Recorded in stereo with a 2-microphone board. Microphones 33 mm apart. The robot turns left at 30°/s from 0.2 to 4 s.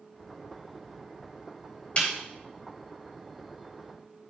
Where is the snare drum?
40° left (ahead or behind), 3.5 m; by 2.1 s 35° left (ahead or behind), 3.5 m.